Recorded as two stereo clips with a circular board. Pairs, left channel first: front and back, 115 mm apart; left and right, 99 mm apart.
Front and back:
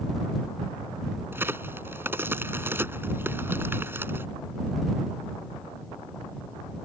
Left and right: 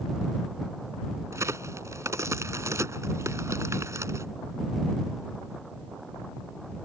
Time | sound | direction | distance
1.3 | a crack | 125° right | ?